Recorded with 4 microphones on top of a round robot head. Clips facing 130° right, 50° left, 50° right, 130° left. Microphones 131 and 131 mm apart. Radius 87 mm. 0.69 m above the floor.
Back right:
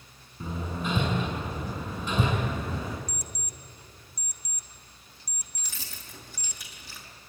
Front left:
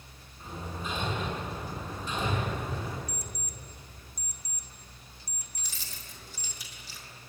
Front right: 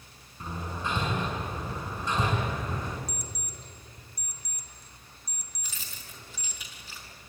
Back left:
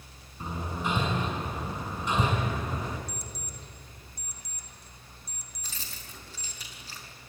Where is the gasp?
No gasp in this recording.